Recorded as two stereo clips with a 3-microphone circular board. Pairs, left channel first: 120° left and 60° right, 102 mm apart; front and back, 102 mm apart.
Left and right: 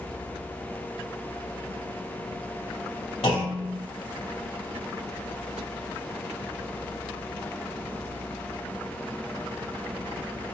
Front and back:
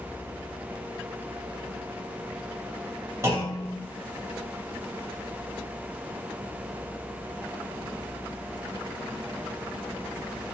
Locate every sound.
3.2 s a clunk: 120° left, 2 m